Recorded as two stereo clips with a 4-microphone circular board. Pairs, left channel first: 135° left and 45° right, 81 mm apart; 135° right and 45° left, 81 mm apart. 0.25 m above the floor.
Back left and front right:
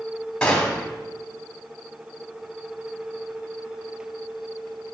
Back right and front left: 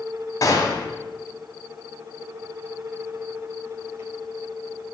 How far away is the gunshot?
About 2.0 m.